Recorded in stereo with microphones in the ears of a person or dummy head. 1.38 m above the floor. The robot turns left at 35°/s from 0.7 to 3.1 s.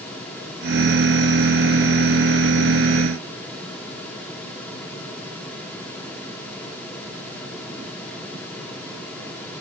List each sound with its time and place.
Only background noise.